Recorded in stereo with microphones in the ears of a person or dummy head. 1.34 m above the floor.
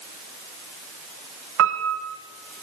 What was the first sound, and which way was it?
A piano, 70° right (ahead or behind).